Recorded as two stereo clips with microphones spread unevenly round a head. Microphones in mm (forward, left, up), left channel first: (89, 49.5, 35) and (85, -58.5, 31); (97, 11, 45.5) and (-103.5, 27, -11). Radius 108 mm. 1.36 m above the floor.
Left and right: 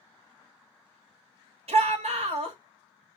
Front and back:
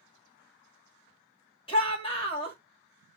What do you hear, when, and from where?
1.7 s a shout: 70° right, 2.5 m